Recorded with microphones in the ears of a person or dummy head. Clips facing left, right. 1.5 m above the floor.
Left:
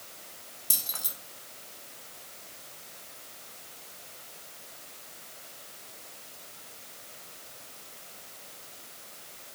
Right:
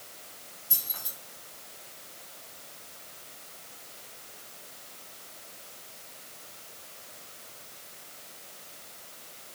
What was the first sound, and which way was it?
Keys jangling, 75° left (ahead or behind).